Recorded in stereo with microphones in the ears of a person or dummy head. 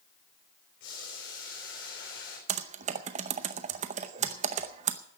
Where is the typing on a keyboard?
35° right (ahead or behind), 0.7 m.